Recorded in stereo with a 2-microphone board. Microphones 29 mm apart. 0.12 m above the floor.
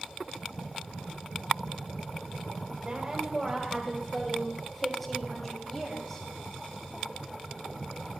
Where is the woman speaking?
25° right (ahead or behind), 4 m; by 6.2 s 15° left (ahead or behind), 7.5 m.